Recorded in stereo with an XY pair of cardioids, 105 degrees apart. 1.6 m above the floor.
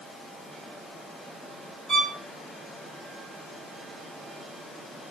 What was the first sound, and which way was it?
A violin, 30° right.